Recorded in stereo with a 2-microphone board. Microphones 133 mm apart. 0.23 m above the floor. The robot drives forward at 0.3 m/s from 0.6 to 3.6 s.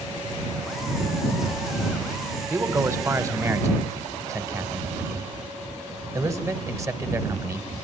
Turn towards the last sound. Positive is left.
turn(degrees=-25)  # may be behind; listen again after turning